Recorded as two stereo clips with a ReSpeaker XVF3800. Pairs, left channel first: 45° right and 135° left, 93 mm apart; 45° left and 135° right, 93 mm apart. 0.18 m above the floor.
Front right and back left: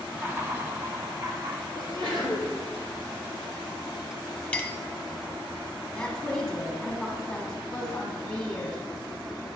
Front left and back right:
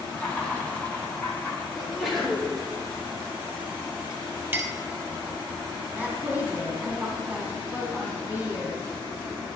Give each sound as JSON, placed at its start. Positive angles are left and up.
{"t": 0.1, "sound": "laughter", "azimuth_deg": 100, "distance_m": 1.7}
{"t": 1.8, "sound": "a sneeze", "azimuth_deg": 140, "distance_m": 3.0}
{"t": 4.5, "sound": "a clink", "azimuth_deg": -100, "distance_m": 0.6}
{"t": 6.0, "sound": "a woman speaking", "azimuth_deg": -110, "distance_m": 1.7}